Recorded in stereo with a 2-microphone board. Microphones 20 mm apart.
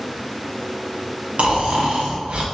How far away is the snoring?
About 0.5 m.